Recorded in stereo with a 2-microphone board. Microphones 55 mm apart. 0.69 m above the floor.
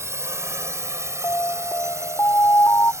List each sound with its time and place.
0.0 s a drone: 55° right (ahead or behind); by 3.0 s 60° right (ahead or behind)
1.2 s an alarm: 55° left (ahead or behind)